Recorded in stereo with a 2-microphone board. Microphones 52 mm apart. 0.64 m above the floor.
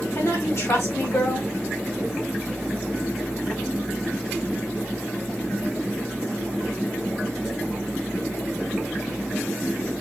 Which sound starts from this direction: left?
A woman speaking, at 0.1 s.